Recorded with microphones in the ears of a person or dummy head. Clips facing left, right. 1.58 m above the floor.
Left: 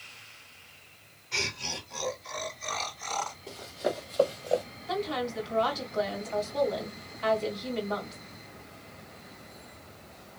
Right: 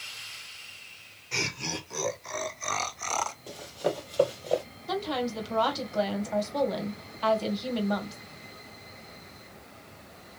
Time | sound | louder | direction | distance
1.3 | laughter | right 3 dB | 60° right (ahead or behind) | 2.0 m
3.5 | running footsteps | right 1 dB | 35° right (ahead or behind) | 2 m
4.9 | a woman speaking | right 1 dB | 55° right (ahead or behind) | 1.8 m